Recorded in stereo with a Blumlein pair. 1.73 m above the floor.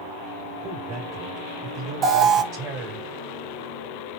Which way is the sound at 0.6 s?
30° right.